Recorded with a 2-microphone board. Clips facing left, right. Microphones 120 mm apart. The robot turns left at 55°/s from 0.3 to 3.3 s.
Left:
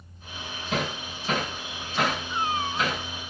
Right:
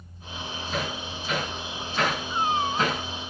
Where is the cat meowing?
20° right, 1.1 m; by 2.9 s 55° right, 1.1 m.